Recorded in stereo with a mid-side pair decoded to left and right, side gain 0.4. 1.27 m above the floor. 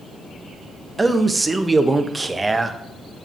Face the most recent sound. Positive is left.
turn(degrees=-25)